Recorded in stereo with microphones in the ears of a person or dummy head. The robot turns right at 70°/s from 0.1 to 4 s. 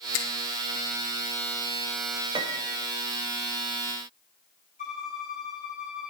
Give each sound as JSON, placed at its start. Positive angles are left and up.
{"t": 0.1, "sound": "a finger snap", "side_deg": 70, "distance_m": 3.5}
{"t": 2.4, "sound": "a piano", "azimuth_deg": -150, "distance_m": 1.7}
{"t": 4.8, "sound": "a violin", "side_deg": 50, "distance_m": 8.0}